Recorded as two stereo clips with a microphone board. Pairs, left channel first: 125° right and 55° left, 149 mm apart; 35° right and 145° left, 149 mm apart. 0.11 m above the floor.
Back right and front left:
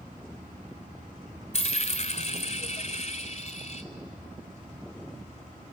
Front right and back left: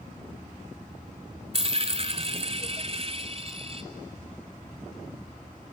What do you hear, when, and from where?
1.5 s a dropped coin: 165° right, 0.9 m